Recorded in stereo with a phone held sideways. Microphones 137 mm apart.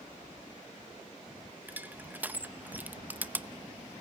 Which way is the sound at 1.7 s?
10° right (ahead or behind).